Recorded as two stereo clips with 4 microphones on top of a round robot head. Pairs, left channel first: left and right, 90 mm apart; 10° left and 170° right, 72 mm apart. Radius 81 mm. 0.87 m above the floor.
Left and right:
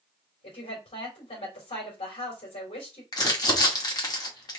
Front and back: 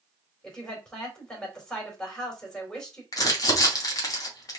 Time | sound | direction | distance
0.4 | a woman speaking | 95° left | 3 m
3.1 | crumpling | 45° left | 2 m